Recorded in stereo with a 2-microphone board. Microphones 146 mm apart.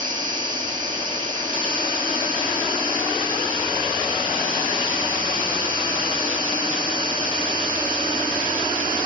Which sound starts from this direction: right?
An insect, at 0.0 s.